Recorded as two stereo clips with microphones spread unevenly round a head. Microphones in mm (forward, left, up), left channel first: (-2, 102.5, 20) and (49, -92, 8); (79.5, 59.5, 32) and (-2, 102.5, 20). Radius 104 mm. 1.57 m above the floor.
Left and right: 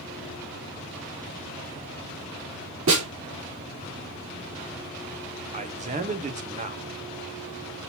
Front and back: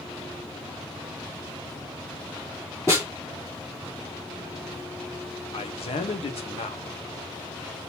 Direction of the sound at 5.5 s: 20° right.